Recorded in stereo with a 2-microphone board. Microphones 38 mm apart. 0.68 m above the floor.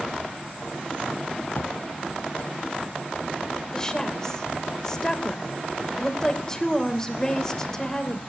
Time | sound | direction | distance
1.5 | a drawer | 75° left (ahead or behind) | 1.8 m
3.7 | a woman speaking | 15° left (ahead or behind) | 2.5 m